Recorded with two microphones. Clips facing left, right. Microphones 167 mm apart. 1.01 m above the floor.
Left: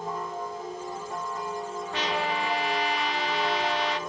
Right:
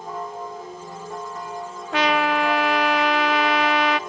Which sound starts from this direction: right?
A trumpet, at 1.9 s.